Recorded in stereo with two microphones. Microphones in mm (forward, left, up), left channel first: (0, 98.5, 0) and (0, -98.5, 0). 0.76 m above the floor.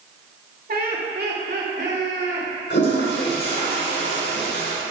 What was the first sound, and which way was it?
Laughter, 50° right (ahead or behind).